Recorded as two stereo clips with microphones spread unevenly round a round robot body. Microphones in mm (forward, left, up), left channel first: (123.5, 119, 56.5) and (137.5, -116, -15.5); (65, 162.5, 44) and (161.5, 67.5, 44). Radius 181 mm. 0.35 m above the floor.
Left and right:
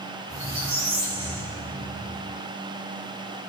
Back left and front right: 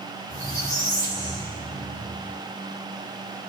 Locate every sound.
0.3 s a squeak: 155° right, 5 m